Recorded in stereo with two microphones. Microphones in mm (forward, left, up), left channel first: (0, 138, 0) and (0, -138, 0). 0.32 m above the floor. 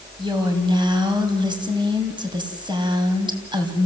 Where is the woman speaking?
15° right (ahead or behind), 2.5 m.